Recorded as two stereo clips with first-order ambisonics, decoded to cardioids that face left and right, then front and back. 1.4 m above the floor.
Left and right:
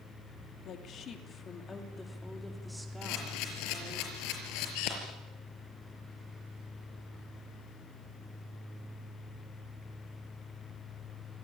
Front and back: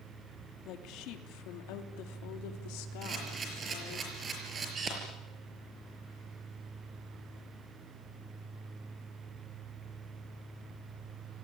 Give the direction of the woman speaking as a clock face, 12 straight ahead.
11 o'clock.